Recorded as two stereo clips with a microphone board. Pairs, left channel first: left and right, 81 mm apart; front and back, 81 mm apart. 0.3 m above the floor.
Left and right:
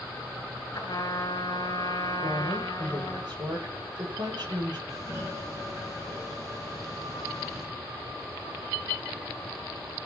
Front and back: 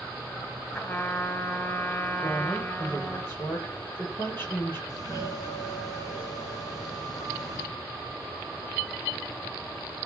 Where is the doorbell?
40° right, 5 m.